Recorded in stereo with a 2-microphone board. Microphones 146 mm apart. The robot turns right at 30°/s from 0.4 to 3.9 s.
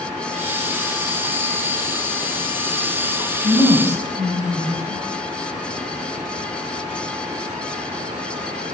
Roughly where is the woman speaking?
Right.